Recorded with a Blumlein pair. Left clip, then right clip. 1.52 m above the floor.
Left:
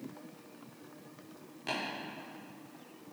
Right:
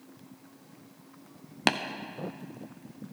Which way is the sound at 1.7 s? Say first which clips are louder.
Right 10 dB; 50° right.